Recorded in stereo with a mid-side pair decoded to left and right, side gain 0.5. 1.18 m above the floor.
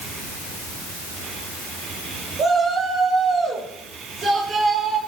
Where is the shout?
55° right, 7.5 m; by 5.0 s 75° right, 5 m.